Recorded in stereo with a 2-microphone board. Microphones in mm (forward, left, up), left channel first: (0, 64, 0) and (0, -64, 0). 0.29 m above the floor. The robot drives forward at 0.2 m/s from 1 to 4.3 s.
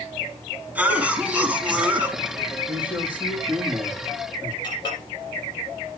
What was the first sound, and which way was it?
A cough, 10° right (ahead or behind).